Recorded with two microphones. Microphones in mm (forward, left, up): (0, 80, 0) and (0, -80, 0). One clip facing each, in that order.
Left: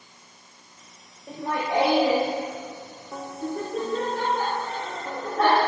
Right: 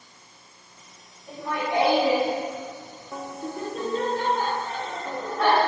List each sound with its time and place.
1.3 s laughter: 55° left (ahead or behind), 2 m; by 5.6 s 80° left, 8.5 m